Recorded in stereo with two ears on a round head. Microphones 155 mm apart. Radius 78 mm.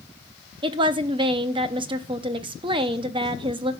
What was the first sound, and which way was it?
A woman speaking, 30° right (ahead or behind).